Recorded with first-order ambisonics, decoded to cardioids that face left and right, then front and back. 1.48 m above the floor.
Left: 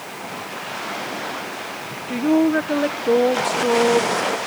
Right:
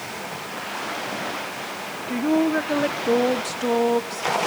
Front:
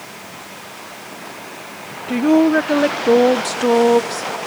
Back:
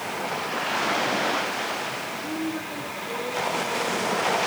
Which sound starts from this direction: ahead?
A woman speaking, at 2.1 s.